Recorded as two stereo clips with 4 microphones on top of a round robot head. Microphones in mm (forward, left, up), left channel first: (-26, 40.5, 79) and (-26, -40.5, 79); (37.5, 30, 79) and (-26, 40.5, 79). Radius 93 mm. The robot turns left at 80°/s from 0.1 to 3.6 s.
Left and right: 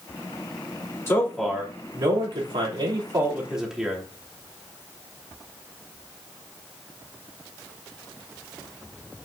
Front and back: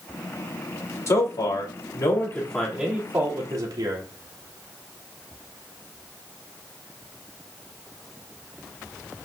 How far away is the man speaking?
About 3 m.